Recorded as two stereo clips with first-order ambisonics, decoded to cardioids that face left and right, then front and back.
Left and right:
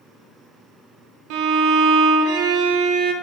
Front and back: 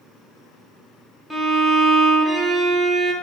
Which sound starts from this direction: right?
A violin, at 1.3 s.